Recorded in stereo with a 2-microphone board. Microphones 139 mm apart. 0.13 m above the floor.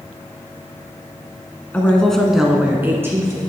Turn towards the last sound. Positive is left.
turn(degrees=-20)  # may be behind; listen again after turning